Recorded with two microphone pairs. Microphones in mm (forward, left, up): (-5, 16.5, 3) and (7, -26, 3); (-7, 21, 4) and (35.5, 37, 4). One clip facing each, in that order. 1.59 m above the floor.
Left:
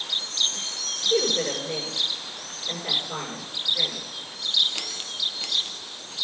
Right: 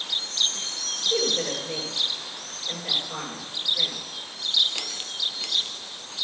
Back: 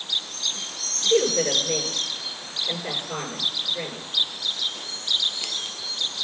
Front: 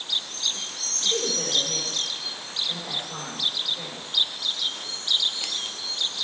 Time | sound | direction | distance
0.9 | a woman speaking | 160° left | 5.5 m